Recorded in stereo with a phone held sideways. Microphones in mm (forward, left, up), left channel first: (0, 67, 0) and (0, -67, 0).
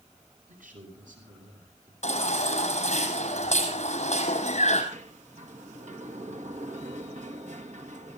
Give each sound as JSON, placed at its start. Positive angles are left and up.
{"t": 0.5, "sound": "a man speaking", "side_deg": -90, "distance_m": 8.5}
{"t": 2.0, "sound": "a baby crying", "side_deg": 60, "distance_m": 6.0}
{"t": 4.9, "sound": "a sliding door", "side_deg": -65, "distance_m": 1.9}